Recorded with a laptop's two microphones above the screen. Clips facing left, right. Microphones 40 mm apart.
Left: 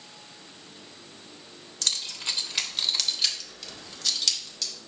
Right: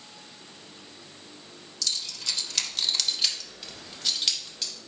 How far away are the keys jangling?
About 0.8 m.